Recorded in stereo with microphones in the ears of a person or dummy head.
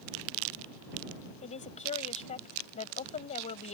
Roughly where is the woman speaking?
Left.